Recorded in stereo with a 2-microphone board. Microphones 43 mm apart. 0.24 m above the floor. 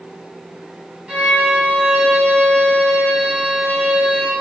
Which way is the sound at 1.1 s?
20° right (ahead or behind).